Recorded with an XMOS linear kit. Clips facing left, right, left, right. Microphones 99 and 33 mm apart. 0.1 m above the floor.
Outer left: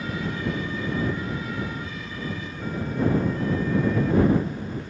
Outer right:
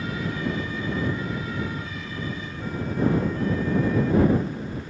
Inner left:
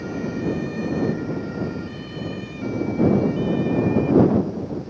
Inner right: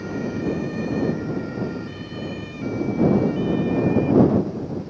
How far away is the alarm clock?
No alarm clock in this recording.